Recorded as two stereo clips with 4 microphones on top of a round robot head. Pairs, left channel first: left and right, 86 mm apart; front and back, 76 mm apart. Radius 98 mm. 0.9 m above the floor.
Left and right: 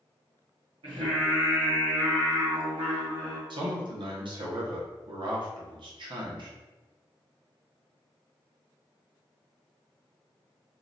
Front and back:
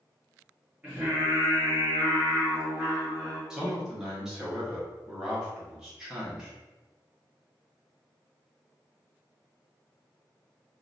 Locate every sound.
0.8 s singing: 100° right, 1.4 m
3.5 s a man speaking: 100° right, 1.0 m